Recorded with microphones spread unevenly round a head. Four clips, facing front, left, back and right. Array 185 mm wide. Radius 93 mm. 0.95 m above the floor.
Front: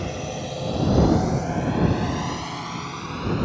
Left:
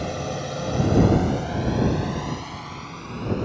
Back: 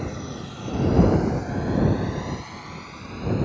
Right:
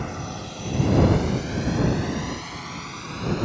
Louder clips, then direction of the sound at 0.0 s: Left 4 dB, front 3 dB; 70° left.